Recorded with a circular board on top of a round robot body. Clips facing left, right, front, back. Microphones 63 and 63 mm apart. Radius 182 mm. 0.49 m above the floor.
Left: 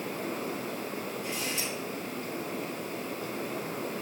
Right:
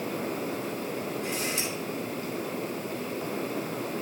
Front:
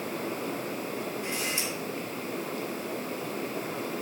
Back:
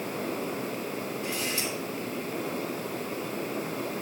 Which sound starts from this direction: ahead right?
A camera shutter, at 1.2 s.